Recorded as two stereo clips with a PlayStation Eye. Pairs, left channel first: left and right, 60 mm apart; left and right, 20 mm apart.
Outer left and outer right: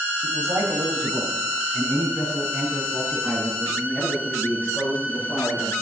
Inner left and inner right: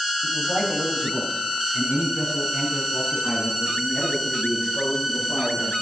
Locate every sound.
0.2 s a man speaking: 50° right (ahead or behind), 1.8 m; by 5.7 s 35° right (ahead or behind), 6 m